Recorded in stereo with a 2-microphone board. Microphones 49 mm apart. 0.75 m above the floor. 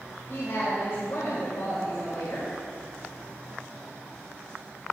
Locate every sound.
0.3 s a woman speaking: 70° left (ahead or behind), 2.5 m